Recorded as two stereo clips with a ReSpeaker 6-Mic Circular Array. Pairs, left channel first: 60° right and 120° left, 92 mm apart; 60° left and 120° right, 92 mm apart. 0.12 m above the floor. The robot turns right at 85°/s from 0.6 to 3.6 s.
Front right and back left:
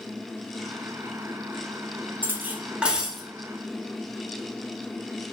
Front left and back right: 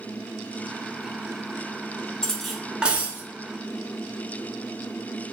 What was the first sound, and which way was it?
Cutlery clinking, 125° left.